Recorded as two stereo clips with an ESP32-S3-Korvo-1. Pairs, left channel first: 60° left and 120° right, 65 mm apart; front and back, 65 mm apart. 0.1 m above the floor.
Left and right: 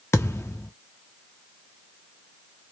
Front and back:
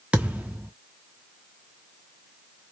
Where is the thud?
110° left, 0.6 m.